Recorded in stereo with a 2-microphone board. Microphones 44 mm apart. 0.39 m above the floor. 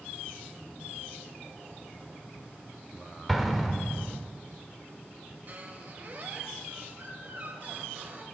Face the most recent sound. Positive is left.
turn(degrees=-45)  # may be behind; listen again after turning